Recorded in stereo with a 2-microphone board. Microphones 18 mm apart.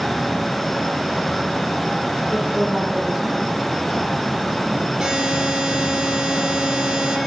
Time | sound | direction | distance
2.3 | a woman speaking | 50° right (ahead or behind) | 8 m
5.0 | a buzzer | 50° right (ahead or behind) | 9.5 m